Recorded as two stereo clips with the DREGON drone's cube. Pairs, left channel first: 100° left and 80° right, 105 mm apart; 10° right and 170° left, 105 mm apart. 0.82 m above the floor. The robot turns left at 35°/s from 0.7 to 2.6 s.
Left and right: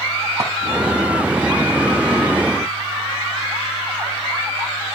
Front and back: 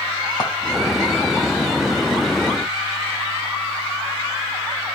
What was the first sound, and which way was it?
A clink, 60° right.